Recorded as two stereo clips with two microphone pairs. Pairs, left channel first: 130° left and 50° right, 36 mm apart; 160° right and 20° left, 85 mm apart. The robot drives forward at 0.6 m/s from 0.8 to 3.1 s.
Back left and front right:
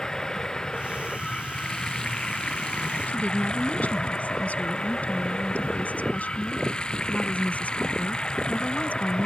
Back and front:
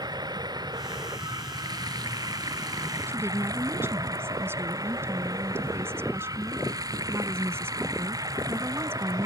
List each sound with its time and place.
0.0 s running water: 55° left; by 9.2 s 60° left
3.1 s a woman speaking: 80° left